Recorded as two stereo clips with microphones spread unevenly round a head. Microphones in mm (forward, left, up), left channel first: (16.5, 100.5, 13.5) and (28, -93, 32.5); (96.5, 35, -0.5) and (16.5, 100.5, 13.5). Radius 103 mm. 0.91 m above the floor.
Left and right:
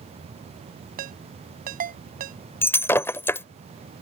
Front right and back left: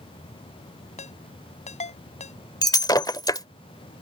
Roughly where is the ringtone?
Ahead right.